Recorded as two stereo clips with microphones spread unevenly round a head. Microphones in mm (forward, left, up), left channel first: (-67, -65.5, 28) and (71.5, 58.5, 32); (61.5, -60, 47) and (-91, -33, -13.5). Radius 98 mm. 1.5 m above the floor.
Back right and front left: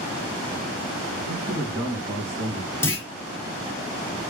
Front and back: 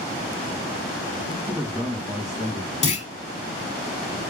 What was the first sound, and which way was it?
A man speaking, 75° left.